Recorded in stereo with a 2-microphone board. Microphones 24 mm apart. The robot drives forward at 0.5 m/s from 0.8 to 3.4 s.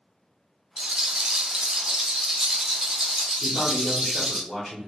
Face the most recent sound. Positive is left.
turn(degrees=25)  # may be behind; listen again after turning